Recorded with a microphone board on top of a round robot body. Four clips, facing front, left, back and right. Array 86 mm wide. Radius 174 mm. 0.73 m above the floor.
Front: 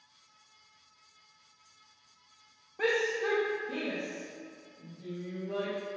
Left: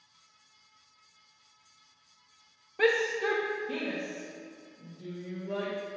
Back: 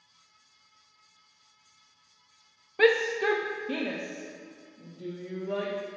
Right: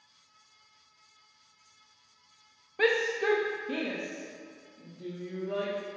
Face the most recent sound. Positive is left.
turn(degrees=-155)